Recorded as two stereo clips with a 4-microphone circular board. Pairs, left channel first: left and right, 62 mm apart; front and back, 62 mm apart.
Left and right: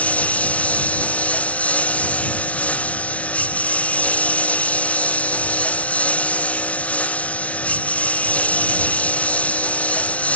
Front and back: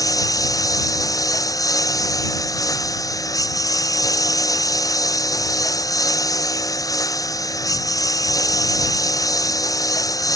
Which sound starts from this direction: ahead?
A lawn mower, at 0.0 s.